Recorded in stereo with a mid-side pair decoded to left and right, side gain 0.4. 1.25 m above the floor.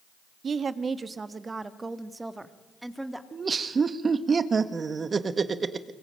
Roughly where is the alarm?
I don't hear an alarm.